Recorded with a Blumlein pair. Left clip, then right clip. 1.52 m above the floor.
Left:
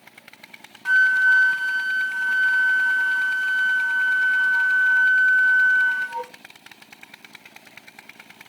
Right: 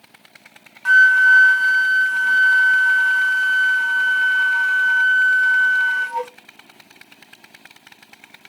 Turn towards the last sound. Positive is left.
turn(degrees=-20)